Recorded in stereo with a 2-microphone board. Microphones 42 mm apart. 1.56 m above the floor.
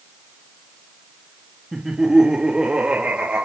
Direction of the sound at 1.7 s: 5° right (ahead or behind).